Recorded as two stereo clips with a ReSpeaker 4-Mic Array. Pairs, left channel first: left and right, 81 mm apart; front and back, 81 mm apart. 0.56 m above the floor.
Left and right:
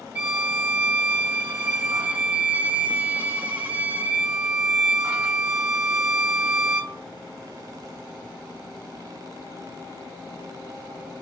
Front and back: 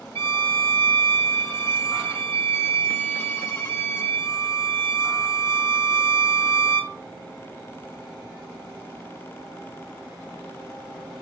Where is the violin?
40° right, 1.0 m.